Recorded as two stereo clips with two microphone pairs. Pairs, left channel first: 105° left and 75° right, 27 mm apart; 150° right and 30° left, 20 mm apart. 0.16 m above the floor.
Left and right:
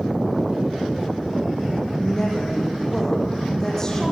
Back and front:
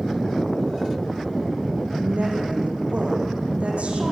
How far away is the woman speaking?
About 6.5 m.